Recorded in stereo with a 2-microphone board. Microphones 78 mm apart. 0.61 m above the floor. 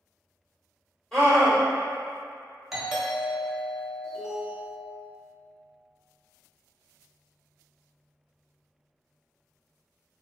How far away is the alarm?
About 1.2 m.